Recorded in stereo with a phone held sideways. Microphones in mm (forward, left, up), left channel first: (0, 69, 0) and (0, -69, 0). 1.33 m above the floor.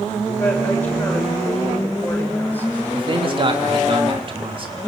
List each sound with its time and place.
0.4 s a woman speaking: 15° left (ahead or behind), 7 m
2.9 s a man speaking: 40° right (ahead or behind), 3 m